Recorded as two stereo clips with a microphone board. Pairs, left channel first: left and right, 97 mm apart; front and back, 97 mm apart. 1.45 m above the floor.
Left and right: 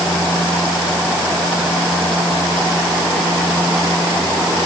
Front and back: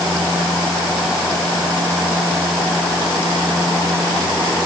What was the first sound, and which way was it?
Only background noise.